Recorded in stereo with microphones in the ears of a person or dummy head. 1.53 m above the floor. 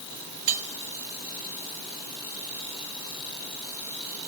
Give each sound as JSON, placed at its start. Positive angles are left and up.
{"t": 0.5, "sound": "cutlery clinking", "side_deg": -45, "distance_m": 1.4}